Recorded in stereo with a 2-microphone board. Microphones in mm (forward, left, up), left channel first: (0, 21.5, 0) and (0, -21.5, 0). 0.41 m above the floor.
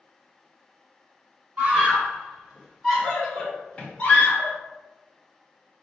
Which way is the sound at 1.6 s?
30° right (ahead or behind).